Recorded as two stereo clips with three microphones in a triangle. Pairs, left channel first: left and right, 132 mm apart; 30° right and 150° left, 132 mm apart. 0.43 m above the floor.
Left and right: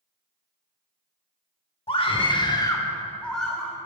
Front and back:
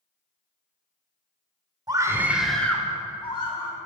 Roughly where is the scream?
Left.